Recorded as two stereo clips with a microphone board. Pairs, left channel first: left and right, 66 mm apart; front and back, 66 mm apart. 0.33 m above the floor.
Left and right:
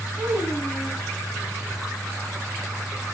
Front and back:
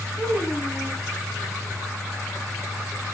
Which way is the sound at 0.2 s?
10° right.